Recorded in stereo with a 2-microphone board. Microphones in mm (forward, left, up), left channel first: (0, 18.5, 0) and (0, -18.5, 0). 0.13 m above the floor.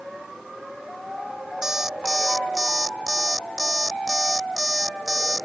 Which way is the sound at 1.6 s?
10° right (ahead or behind).